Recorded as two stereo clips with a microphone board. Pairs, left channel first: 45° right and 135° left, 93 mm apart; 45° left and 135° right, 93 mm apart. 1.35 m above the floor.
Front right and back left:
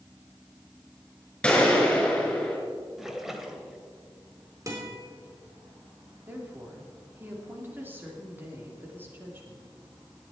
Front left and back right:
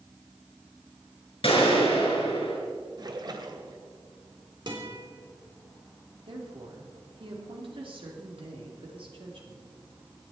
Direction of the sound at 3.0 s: 140° right.